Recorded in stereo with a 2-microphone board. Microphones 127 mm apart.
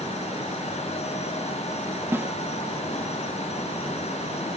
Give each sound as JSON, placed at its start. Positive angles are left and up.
{"t": 2.1, "sound": "a snare drum", "side_deg": -15, "distance_m": 0.8}